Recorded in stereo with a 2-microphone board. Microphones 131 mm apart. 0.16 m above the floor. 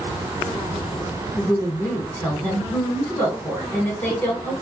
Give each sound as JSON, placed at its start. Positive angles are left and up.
{"t": 1.4, "sound": "a woman speaking", "side_deg": 15, "distance_m": 1.3}